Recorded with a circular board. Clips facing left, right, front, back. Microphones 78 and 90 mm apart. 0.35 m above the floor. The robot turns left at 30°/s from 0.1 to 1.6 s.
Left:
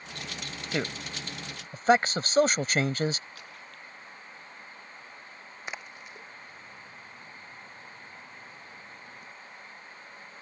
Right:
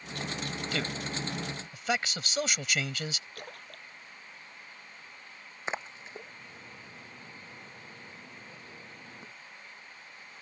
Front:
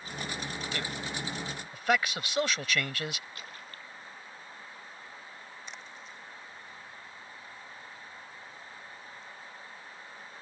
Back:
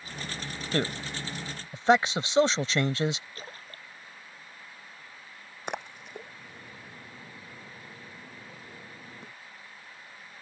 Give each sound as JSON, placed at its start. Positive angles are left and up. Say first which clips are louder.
{"t": 0.7, "sound": "a man speaking", "louder": "left 4 dB, back 11 dB", "azimuth_deg": 150}
{"t": 3.4, "sound": "a splash", "louder": "right 1 dB, back 1 dB", "azimuth_deg": -125}
{"t": 5.7, "sound": "a splash", "louder": "right 5 dB, back 9 dB", "azimuth_deg": -150}